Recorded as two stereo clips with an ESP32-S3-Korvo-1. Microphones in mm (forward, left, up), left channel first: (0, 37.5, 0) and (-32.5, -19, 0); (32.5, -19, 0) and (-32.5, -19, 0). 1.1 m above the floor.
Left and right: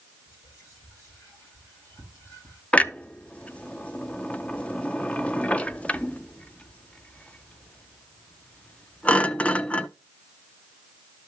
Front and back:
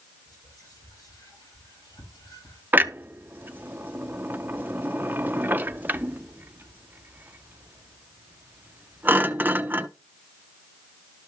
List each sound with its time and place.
0.3 s whispering: 15° left, 7.5 m
2.7 s a clunk: 125° left, 0.5 m